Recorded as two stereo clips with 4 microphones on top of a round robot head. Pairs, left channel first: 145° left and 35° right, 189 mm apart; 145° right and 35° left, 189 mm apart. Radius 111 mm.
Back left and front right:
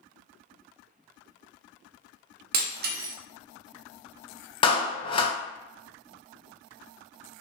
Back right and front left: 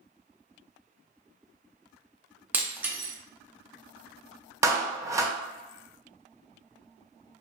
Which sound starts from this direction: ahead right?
Breaking glass, at 2.5 s.